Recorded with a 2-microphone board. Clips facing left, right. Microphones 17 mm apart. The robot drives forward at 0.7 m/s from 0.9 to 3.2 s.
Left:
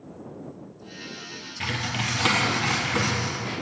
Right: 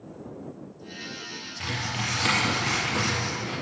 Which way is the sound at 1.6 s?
25° left (ahead or behind).